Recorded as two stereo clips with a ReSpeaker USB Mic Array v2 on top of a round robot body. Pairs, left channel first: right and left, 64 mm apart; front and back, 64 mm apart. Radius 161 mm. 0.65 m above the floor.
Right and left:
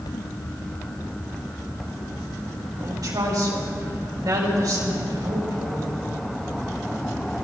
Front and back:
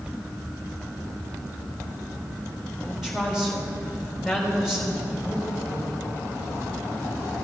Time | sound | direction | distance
2.8 | a woman speaking | 95° left | 4 m